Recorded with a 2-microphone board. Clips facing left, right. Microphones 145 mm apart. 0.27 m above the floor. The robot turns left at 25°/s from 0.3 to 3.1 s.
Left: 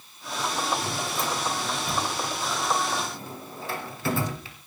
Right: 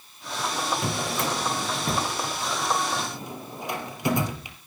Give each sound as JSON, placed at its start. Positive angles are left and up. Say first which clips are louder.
{"t": 0.8, "sound": "a drawer", "louder": "right 2 dB", "side_deg": -70, "distance_m": 2.5}